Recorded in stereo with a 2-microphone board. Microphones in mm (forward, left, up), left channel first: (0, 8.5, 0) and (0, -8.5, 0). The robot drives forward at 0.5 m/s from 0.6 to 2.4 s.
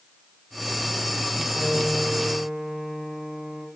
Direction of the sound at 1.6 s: 75° right (ahead or behind).